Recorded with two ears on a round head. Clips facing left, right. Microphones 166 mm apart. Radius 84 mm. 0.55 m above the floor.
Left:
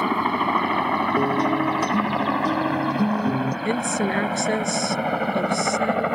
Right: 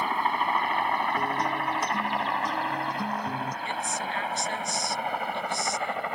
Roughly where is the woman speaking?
Left.